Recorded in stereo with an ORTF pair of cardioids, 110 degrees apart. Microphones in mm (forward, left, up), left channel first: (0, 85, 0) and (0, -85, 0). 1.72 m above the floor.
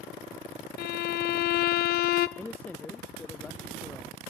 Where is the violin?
70° left, 0.9 m.